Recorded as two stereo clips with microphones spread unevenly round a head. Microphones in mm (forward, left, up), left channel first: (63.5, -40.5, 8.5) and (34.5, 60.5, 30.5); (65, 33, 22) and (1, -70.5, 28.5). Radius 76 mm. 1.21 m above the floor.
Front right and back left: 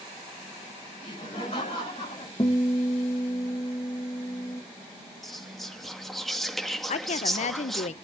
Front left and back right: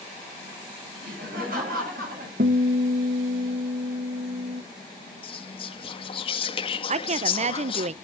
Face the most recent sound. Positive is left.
turn(degrees=-85)